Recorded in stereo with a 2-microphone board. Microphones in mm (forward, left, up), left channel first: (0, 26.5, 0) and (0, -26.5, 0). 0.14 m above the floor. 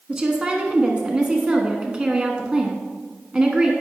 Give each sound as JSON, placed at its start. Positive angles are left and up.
{"t": 0.1, "sound": "a woman speaking", "side_deg": -20, "distance_m": 1.1}